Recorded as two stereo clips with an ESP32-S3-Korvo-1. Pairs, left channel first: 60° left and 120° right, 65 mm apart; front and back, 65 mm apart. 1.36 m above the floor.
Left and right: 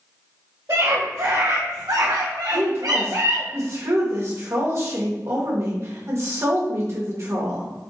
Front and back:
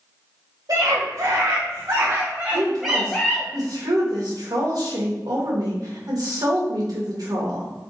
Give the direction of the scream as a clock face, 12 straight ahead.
6 o'clock.